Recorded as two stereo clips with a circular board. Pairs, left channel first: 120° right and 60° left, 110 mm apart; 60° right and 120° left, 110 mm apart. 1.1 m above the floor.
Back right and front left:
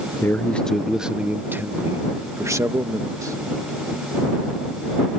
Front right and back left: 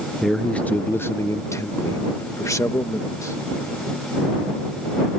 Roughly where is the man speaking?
Behind right.